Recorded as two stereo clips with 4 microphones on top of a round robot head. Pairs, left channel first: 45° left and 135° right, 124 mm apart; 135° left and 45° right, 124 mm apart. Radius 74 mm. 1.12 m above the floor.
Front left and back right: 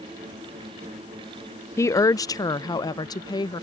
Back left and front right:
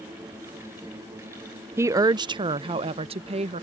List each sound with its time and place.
1.8 s a woman speaking: straight ahead; by 3.6 s 10° right